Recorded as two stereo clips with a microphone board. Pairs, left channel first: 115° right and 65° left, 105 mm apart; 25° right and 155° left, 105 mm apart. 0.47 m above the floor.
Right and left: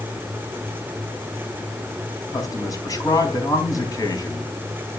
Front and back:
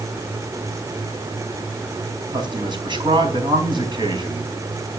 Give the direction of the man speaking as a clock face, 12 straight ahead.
5 o'clock.